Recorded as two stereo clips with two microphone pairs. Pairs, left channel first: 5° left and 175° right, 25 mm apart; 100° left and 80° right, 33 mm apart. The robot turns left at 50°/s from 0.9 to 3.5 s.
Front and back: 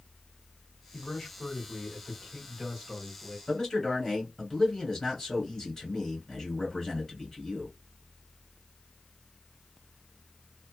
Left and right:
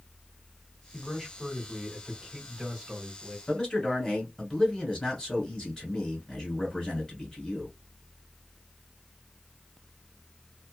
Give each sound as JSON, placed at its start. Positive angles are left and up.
{"t": 0.9, "sound": "a man speaking", "azimuth_deg": 0, "distance_m": 1.5}
{"t": 3.5, "sound": "a man speaking", "azimuth_deg": 65, "distance_m": 1.7}